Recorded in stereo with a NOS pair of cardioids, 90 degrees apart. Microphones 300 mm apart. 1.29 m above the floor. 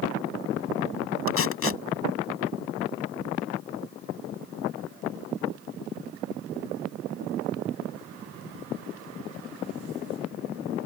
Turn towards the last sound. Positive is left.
turn(degrees=45)